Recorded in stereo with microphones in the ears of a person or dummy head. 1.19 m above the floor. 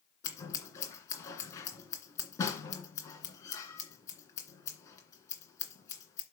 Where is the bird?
No bird in this recording.